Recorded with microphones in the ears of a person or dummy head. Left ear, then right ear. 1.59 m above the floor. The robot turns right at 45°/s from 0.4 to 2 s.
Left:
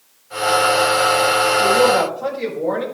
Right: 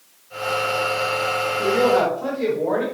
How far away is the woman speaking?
About 5.5 m.